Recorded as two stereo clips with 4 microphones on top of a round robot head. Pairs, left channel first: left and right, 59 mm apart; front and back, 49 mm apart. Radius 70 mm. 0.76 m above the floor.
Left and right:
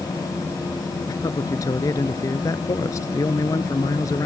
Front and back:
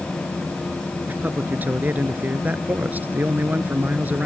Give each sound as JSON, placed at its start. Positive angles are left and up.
{"t": 1.1, "sound": "a man speaking", "azimuth_deg": 130}